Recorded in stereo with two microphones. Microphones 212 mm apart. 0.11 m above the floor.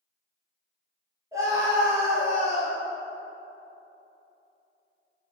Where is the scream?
15° right (ahead or behind), 2.5 m.